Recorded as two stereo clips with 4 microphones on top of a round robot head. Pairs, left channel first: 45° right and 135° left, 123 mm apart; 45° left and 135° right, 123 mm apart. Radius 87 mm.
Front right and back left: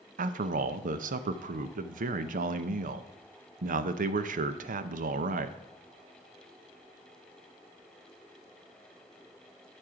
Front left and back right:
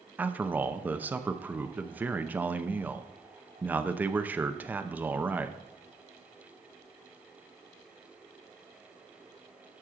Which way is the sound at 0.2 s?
145° left.